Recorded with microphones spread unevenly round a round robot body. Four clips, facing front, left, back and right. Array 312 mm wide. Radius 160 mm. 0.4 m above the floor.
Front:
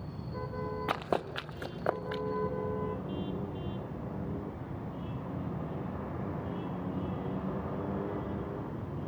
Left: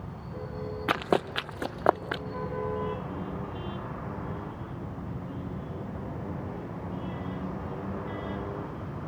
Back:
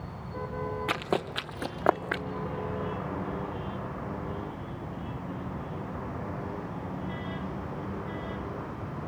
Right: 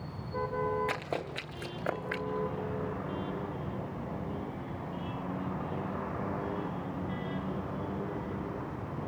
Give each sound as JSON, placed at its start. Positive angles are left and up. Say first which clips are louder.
{"t": 0.9, "sound": "running footsteps", "louder": "left 8 dB, back 1 dB", "azimuth_deg": 95, "distance_m": 1.4}